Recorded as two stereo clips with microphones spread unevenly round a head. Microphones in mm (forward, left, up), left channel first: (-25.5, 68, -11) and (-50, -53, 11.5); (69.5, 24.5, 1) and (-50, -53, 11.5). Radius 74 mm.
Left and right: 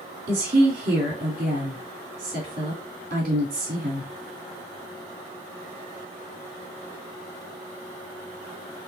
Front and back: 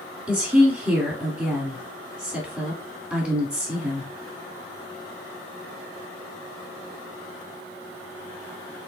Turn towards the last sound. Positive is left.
turn(degrees=-65)